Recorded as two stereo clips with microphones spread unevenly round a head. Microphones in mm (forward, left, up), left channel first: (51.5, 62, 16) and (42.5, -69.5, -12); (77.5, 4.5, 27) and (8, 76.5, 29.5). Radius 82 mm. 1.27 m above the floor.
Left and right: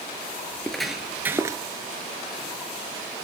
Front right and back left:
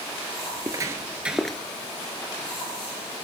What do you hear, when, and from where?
0.5 s footsteps: 145° left, 1.5 m; by 1.6 s 115° right, 1.2 m